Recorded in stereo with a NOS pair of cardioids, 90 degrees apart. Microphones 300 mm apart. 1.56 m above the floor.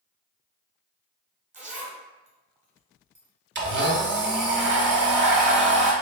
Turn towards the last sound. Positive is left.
turn(degrees=-40)